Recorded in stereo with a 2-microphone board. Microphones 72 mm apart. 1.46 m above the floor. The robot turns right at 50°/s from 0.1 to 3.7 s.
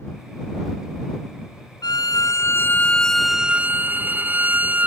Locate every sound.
1.8 s a violin: 110° left; by 4.9 s 155° right